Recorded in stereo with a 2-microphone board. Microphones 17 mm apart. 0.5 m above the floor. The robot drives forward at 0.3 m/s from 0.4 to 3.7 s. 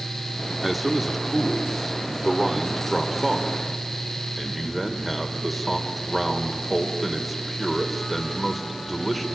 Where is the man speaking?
Centre (ahead or behind), 1.0 m.